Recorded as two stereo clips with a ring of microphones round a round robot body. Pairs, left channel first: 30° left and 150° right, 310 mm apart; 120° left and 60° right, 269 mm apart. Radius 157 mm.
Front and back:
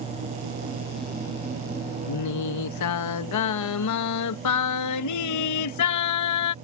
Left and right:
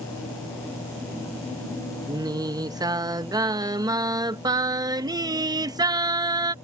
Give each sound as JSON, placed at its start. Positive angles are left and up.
{"t": 2.1, "sound": "singing", "azimuth_deg": 15}